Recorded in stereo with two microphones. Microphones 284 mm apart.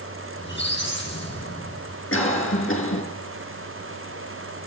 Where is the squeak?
40° left (ahead or behind), 9.5 m.